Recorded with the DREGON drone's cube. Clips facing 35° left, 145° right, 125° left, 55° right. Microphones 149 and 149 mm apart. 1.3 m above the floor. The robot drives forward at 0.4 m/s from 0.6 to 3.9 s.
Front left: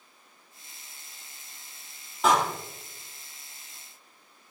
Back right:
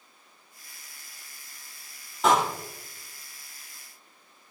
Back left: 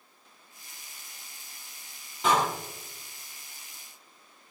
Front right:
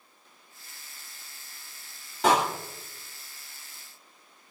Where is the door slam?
55° right, 2.5 m.